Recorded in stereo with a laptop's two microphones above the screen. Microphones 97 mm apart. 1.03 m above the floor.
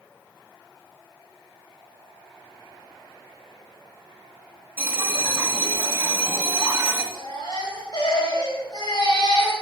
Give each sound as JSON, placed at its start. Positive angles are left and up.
{"t": 4.8, "sound": "a bell", "side_deg": -20, "distance_m": 1.8}
{"t": 7.1, "sound": "a baby crying", "side_deg": 45, "distance_m": 4.0}